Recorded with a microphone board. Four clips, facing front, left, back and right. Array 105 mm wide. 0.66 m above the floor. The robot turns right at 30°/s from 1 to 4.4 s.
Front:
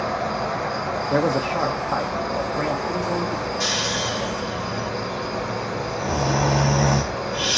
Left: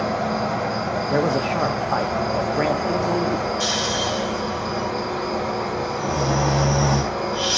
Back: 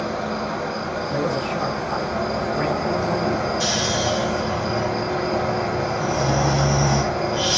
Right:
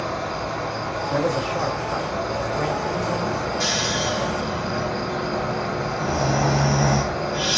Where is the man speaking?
45° left, 0.7 m; by 3.5 s 120° left, 0.7 m.